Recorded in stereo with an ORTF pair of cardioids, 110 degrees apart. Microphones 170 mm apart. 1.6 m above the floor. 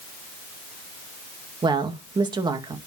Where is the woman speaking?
25° right, 2 m.